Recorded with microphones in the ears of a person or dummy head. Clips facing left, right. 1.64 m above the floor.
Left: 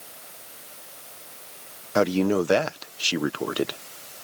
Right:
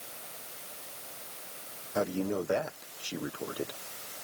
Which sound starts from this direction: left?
A man speaking, at 1.9 s.